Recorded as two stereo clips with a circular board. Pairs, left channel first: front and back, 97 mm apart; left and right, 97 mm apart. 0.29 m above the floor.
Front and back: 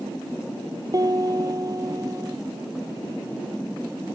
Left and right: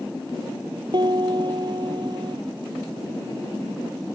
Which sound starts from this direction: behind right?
A piano, at 0.9 s.